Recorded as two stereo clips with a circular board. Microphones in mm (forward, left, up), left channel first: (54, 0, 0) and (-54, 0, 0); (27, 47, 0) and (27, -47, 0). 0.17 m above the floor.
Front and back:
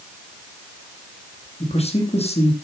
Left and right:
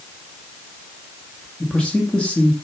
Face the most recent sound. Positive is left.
turn(degrees=10)